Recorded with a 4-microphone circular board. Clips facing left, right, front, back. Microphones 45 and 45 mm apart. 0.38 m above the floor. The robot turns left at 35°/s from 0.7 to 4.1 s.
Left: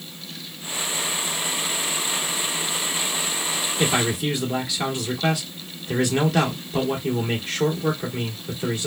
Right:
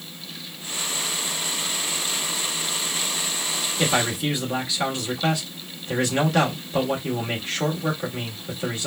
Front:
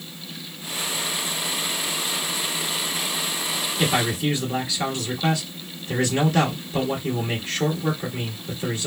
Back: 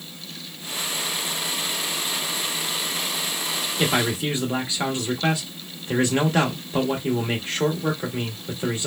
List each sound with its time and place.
3.8 s a man speaking: 170° right, 1.4 m; by 8.9 s straight behind, 1.4 m